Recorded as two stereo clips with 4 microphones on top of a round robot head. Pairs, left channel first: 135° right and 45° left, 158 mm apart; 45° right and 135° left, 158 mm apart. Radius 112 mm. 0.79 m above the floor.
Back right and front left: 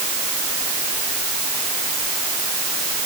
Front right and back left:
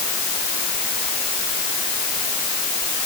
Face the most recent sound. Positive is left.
No sound to turn to.